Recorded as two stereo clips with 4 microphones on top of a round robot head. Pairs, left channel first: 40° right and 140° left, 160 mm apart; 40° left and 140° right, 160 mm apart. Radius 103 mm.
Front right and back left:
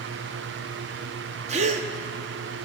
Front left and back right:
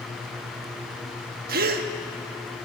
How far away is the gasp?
About 0.7 m.